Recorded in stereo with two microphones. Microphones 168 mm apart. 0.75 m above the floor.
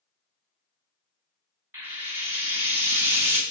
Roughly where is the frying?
Centre.